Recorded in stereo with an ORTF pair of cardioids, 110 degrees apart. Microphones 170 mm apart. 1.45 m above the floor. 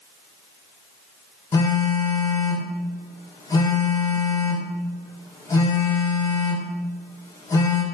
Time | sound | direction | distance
1.5 | a phone buzzing | 20° left | 1.2 m